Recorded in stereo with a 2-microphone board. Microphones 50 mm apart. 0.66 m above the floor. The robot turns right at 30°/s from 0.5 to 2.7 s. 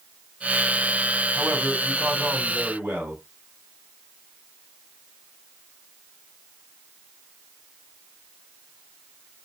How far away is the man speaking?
About 2.5 m.